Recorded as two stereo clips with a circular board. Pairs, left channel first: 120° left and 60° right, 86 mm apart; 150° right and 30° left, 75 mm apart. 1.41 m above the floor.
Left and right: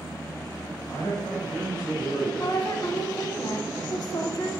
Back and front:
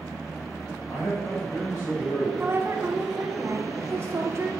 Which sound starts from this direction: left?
A woman speaking, at 2.4 s.